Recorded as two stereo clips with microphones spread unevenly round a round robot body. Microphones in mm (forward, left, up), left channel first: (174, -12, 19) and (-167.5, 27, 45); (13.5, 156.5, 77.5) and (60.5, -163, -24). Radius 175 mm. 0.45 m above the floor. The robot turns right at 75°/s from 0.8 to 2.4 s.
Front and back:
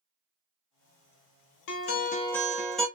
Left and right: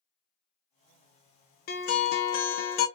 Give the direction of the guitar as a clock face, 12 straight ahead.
11 o'clock.